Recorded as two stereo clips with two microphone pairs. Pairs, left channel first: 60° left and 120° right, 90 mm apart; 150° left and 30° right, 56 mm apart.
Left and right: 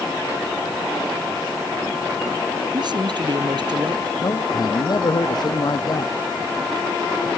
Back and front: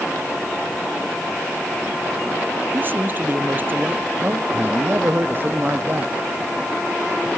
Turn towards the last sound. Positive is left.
turn(degrees=20)